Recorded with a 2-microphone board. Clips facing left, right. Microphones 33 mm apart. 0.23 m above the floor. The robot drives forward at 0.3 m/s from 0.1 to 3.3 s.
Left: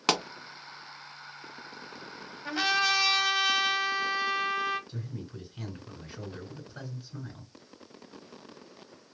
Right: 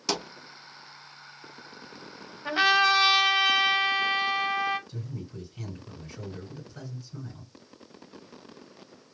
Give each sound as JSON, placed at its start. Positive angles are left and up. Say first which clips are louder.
{"t": 0.1, "sound": "a pop", "louder": "left 4 dB", "side_deg": 55, "distance_m": 0.9}
{"t": 2.5, "sound": "a trumpet", "louder": "right 5 dB", "side_deg": -20, "distance_m": 1.1}
{"t": 4.9, "sound": "a man speaking", "louder": "right 1 dB", "side_deg": 25, "distance_m": 2.5}